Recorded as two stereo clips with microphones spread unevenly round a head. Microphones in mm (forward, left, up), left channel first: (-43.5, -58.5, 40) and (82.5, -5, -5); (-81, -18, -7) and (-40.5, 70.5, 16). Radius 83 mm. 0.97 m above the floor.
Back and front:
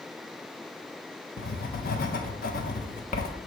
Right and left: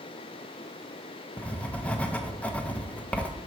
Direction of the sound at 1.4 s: 175° right.